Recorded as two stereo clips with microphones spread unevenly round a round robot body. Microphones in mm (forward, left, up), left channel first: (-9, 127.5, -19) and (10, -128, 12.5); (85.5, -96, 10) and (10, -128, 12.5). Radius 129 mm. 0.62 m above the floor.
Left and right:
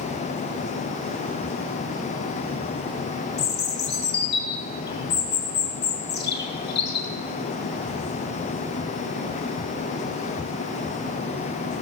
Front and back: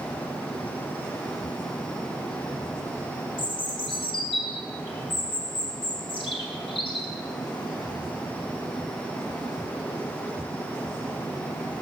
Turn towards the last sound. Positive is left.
turn(degrees=45)